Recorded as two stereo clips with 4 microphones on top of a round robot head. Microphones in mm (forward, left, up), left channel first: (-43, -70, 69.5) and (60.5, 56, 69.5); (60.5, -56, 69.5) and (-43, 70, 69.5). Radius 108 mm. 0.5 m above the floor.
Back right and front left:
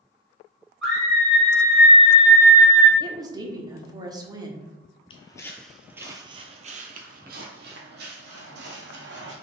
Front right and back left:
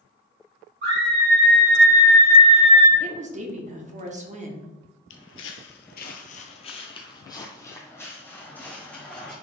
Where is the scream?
140° left, 2.5 m; by 2.9 s 60° left, 1.3 m.